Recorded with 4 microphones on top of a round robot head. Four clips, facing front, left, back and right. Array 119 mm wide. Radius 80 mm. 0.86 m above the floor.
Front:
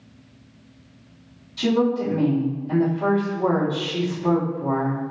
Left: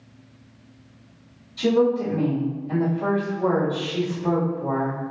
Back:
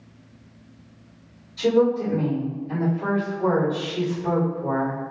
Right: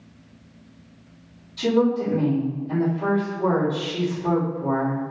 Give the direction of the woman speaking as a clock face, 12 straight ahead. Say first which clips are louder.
Left 1 dB, back 1 dB; 12 o'clock.